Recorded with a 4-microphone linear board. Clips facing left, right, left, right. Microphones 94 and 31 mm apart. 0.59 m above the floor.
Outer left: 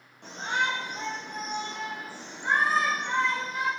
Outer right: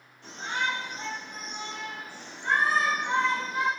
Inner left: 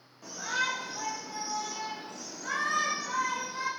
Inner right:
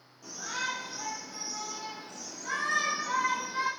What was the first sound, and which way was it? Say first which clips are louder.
A shout: outer left 2 dB, inner left 4 dB; 70° left (ahead or behind).